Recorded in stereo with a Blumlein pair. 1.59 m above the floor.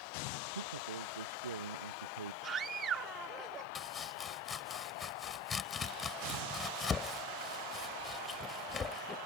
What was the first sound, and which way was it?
A man speaking, 70° right.